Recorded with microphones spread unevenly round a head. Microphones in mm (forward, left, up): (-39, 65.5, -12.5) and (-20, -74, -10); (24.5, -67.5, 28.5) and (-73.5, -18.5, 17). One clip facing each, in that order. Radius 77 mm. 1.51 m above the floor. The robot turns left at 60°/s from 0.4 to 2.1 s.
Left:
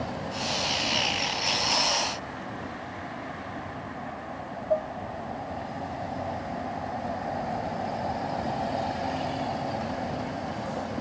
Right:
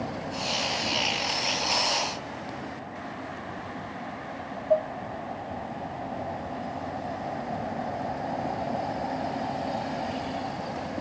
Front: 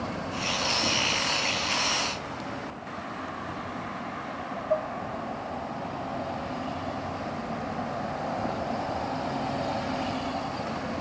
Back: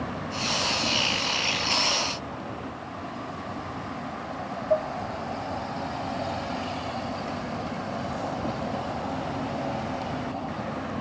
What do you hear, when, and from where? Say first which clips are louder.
4.7 s dishes clattering: right 3 dB, back 3 dB; 130° right